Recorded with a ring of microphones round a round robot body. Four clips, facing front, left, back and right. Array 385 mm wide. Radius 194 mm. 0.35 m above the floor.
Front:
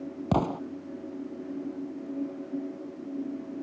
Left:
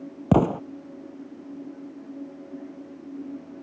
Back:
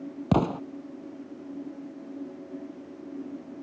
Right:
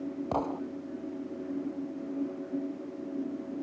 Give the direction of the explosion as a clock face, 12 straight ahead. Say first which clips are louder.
Left 12 dB, back 2 dB; 9 o'clock.